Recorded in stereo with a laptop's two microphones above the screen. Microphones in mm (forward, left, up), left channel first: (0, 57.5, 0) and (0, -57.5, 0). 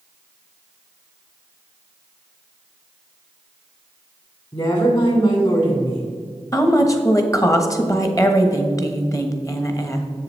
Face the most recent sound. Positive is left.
turn(degrees=30)  # may be behind; listen again after turning